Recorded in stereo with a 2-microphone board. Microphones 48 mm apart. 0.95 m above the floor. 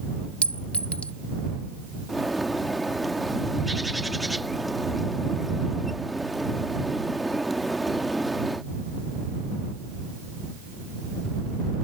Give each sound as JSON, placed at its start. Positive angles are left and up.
{"t": 0.4, "sound": "a clink", "side_deg": 30}
{"t": 2.1, "sound": "a bird", "side_deg": 0}